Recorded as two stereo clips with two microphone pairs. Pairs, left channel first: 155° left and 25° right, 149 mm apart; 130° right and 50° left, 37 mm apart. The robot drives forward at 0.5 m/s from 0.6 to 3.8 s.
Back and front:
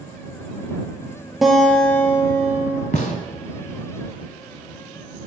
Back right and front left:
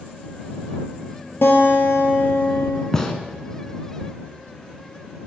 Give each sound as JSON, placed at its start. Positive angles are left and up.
{"t": 1.4, "sound": "a guitar", "azimuth_deg": -115, "distance_m": 1.1}
{"t": 2.9, "sound": "a gunshot", "azimuth_deg": 155, "distance_m": 0.7}